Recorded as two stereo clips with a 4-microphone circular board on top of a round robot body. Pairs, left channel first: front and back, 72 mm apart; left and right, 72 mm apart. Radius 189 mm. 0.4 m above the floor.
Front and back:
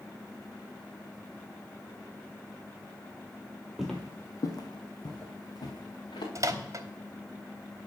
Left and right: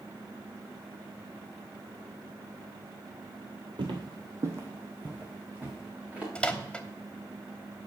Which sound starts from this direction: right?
Footsteps, at 3.8 s.